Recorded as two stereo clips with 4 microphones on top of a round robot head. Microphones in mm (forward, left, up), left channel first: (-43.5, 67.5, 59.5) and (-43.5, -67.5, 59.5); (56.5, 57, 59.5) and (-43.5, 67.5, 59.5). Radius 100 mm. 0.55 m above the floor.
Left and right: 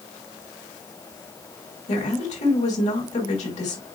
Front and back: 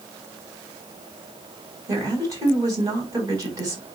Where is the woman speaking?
120° left, 4.5 m.